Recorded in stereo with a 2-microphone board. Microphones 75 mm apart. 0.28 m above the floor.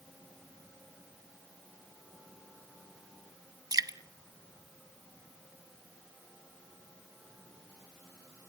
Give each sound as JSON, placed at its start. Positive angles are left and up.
{"t": 3.7, "sound": "dripping", "side_deg": -55, "distance_m": 0.6}